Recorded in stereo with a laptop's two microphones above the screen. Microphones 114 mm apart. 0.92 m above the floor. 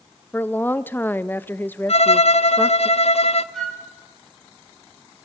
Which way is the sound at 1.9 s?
65° left (ahead or behind).